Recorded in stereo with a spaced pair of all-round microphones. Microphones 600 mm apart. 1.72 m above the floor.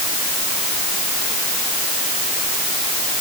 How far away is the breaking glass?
No breaking glass in this recording.